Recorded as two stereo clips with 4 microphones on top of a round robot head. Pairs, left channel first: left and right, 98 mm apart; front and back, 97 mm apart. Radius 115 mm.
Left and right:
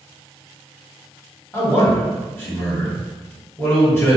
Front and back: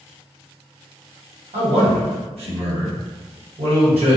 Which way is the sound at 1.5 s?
160° left.